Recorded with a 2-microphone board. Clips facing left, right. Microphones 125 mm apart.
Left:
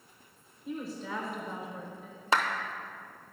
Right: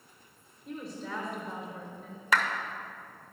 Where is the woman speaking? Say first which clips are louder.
Left 2 dB; centre (ahead or behind), 1.3 m.